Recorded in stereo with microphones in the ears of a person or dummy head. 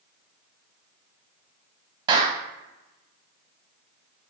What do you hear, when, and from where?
2.1 s a clap: 20° right (ahead or behind), 0.8 m